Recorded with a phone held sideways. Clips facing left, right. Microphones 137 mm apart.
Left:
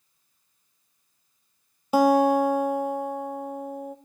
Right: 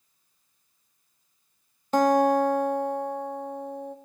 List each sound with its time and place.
1.9 s a guitar: 10° left (ahead or behind), 1.5 m